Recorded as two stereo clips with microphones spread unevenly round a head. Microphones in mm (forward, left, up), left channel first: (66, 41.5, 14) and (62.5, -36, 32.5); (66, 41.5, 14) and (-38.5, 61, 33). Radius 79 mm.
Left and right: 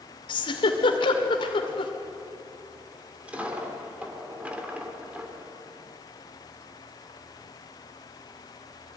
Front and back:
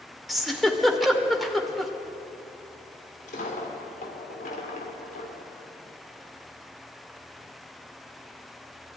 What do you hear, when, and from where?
0.3 s a giggle: 85° left, 2 m
3.2 s a dropped coin: 30° right, 2.5 m